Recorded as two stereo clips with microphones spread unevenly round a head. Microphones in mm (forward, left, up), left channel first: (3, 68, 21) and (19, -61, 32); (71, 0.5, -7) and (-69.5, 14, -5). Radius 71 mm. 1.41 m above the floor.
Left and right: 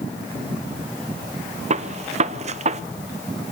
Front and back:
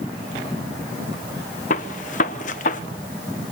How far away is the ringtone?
No ringtone in this recording.